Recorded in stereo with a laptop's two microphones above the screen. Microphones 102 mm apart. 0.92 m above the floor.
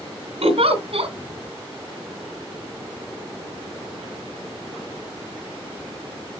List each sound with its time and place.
0.4 s a giggle: 70° right (ahead or behind), 1.9 m